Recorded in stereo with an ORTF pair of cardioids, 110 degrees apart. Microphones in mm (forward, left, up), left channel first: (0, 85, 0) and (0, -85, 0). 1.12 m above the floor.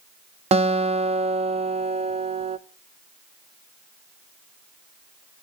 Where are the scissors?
I don't hear scissors.